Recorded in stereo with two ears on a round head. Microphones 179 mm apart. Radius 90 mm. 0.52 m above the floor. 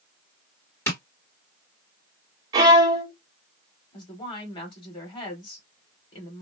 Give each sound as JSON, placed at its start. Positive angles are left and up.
{"t": 0.9, "sound": "tapping", "side_deg": 15, "distance_m": 2.0}
{"t": 2.5, "sound": "a violin", "side_deg": -20, "distance_m": 1.2}
{"t": 3.9, "sound": "a woman speaking", "side_deg": 25, "distance_m": 1.9}